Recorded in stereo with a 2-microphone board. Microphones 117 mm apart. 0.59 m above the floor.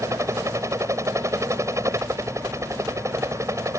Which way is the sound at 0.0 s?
25° right (ahead or behind).